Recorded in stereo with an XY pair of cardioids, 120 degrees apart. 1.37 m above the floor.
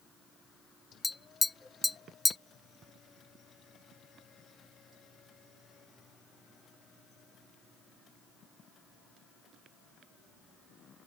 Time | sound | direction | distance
1.0 | tapping | 15° left | ?